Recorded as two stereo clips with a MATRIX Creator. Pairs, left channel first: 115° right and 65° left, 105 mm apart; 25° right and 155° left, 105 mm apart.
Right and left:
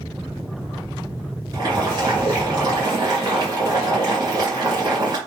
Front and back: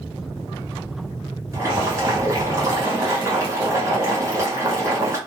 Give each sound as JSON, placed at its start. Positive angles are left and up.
{"t": 1.5, "sound": "boiling", "azimuth_deg": 105, "distance_m": 2.5}